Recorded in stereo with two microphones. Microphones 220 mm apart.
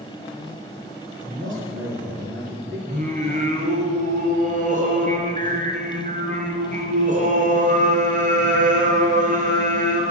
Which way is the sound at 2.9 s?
35° right (ahead or behind).